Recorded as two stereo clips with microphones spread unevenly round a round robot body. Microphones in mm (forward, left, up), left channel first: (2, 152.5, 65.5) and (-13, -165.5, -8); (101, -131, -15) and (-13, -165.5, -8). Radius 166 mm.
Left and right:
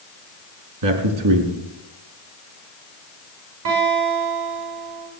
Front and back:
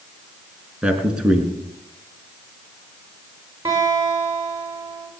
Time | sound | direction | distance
0.8 | a man speaking | 80° right | 4 m
3.6 | a guitar | 100° right | 8.5 m